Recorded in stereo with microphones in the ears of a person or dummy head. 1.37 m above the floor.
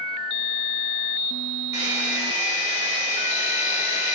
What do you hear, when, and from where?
1.7 s a hair dryer: 10° right (ahead or behind), 3.5 m